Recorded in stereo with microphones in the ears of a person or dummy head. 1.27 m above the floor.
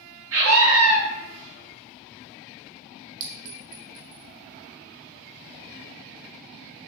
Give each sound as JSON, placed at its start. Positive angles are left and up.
{"t": 0.3, "sound": "a scream", "side_deg": -70, "distance_m": 1.4}
{"t": 3.2, "sound": "a clink", "side_deg": -45, "distance_m": 0.6}